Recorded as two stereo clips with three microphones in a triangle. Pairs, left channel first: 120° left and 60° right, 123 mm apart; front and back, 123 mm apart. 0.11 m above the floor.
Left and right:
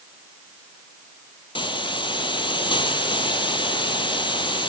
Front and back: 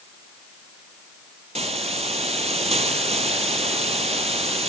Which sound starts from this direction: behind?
A hiss, at 1.6 s.